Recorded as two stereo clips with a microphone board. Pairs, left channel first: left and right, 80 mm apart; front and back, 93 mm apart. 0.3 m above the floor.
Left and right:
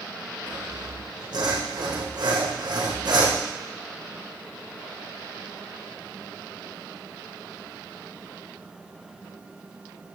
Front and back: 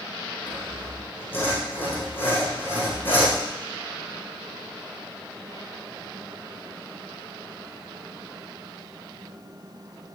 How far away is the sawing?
About 4.5 m.